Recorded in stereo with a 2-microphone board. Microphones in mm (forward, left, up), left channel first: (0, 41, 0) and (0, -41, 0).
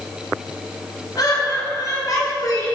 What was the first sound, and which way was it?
Laughter, 50° left (ahead or behind).